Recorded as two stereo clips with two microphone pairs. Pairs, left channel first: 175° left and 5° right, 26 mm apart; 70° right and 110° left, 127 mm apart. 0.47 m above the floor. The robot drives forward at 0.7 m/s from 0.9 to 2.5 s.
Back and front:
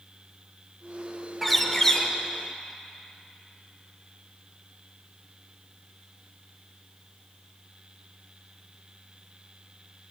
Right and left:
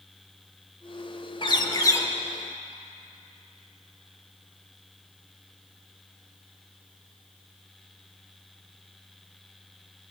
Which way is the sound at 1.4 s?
95° right.